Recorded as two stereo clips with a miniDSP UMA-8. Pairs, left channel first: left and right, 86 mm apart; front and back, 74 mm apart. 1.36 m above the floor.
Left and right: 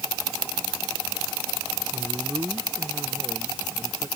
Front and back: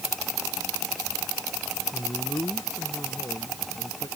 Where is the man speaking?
35° right; by 4.1 s 30° right.